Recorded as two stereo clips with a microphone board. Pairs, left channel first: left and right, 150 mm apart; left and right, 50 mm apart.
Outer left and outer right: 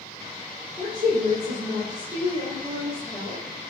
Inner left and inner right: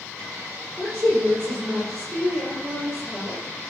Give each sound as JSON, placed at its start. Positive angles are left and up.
{"t": 0.8, "sound": "a woman speaking", "side_deg": -50, "distance_m": 6.5}